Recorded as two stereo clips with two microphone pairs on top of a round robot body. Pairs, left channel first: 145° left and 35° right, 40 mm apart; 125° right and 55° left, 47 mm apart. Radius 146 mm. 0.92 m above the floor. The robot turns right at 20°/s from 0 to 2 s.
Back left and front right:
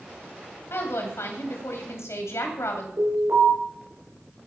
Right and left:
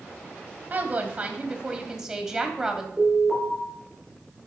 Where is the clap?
No clap in this recording.